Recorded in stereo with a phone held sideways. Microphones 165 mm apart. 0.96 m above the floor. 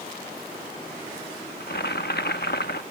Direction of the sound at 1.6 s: 85° left.